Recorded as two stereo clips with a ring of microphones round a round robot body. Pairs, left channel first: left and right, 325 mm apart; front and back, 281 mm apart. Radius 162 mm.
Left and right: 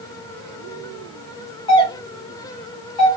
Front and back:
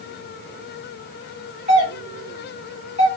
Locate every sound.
1.7 s a doorbell: 150° left, 2 m